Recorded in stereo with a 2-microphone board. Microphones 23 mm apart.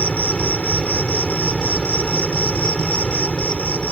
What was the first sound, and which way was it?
An insect, 80° left.